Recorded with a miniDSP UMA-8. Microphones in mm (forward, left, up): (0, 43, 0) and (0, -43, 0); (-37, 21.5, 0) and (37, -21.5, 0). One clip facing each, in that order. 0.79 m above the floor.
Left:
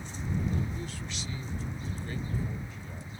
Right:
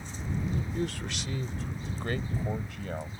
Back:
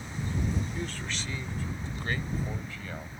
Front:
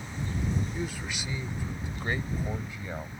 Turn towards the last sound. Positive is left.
turn(degrees=-105)